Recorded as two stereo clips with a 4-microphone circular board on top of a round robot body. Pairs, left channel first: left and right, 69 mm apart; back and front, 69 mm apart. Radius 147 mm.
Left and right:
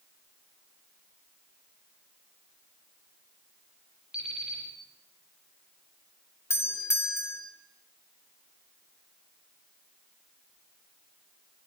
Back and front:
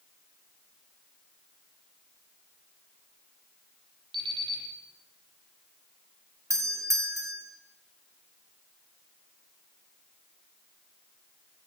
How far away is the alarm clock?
About 9 m.